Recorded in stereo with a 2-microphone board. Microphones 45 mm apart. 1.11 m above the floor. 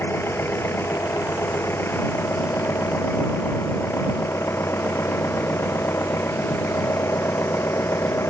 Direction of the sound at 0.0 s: 60° left (ahead or behind).